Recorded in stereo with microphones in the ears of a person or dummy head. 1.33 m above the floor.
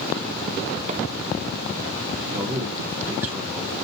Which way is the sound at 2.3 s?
10° right (ahead or behind).